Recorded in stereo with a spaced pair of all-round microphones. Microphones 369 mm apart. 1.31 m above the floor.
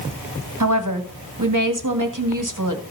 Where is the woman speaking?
55° right (ahead or behind), 1.7 m.